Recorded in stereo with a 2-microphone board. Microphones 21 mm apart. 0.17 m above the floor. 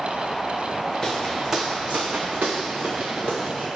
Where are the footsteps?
5° left (ahead or behind), 0.7 m; by 3.7 s 70° right (ahead or behind), 1.5 m.